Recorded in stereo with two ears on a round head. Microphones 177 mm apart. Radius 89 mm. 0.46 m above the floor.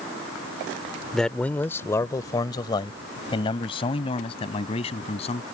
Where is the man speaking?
Centre (ahead or behind); by 5.4 s 30° left (ahead or behind).